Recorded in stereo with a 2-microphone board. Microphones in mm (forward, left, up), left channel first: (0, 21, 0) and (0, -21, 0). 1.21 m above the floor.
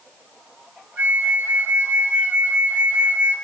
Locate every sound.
1.0 s a flute: 50° right (ahead or behind), 1.4 m